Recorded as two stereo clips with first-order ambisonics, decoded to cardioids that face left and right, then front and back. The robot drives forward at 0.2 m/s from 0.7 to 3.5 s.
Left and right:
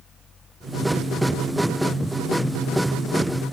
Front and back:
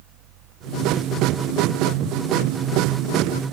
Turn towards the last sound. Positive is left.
No sound to turn to.